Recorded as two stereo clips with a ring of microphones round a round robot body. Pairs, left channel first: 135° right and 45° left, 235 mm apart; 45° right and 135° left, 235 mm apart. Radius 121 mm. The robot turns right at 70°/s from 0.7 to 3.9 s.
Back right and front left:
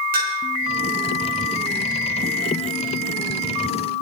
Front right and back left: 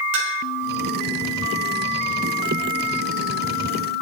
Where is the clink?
100° left, 5 m.